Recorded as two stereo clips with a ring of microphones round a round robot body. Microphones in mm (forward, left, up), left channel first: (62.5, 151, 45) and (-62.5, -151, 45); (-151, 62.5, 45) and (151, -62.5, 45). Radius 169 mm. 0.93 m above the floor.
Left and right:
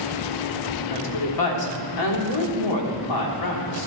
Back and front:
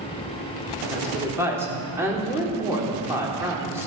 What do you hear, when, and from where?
0.9 s a woman speaking: 60° left, 3.5 m